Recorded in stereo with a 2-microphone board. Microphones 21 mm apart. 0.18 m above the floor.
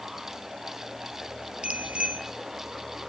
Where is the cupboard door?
No cupboard door in this recording.